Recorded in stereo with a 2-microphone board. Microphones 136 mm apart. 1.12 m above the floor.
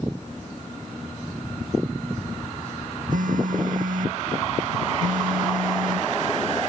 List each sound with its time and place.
3.1 s a phone buzzing: 80° right